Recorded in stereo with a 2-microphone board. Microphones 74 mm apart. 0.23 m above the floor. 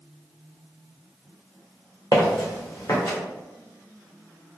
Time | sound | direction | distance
2.1 | footsteps | 60° left (ahead or behind) | 1.3 m